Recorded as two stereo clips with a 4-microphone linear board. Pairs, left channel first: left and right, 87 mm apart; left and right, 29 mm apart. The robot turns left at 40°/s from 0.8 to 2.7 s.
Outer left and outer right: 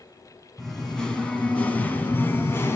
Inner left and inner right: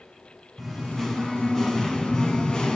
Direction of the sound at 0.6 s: 5° left (ahead or behind).